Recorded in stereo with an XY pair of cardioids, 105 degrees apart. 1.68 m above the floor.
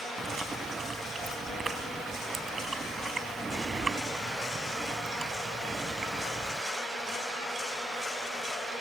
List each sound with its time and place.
0.2 s chewing: 35° right